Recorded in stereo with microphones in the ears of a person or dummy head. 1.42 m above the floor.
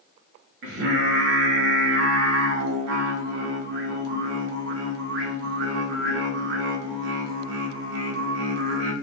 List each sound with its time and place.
0.6 s singing: 60° right (ahead or behind), 0.7 m